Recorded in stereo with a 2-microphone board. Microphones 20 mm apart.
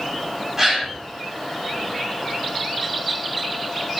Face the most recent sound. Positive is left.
turn(degrees=-20)  # may be behind; listen again after turning